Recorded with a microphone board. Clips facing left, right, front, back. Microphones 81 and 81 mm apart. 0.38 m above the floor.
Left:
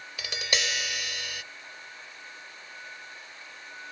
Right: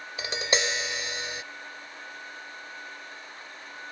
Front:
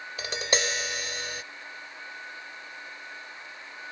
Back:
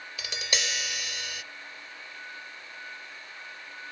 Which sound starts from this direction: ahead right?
Tapping, at 0.2 s.